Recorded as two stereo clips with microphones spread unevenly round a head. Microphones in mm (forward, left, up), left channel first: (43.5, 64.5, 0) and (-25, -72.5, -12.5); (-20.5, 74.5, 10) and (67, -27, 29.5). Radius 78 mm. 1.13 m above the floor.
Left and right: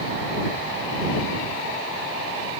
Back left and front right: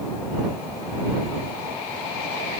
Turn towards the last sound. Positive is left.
No sound to turn to.